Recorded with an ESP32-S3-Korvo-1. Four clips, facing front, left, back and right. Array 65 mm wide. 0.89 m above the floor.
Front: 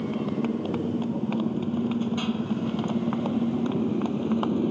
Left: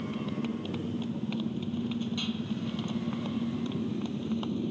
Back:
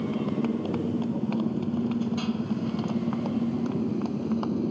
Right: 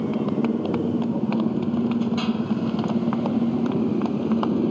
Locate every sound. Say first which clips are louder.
0.0 s a motorcycle: right 11 dB, even; 85° right; by 4.7 s 70° right